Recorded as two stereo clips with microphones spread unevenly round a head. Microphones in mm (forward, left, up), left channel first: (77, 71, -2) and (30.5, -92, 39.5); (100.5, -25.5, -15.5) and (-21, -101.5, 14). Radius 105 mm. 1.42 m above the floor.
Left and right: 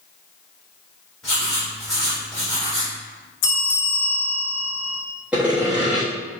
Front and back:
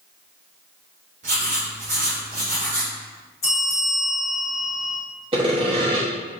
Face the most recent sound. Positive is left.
turn(degrees=-175)